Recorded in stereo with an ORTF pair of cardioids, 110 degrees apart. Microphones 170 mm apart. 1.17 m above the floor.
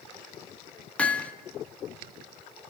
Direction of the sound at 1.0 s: 10° left.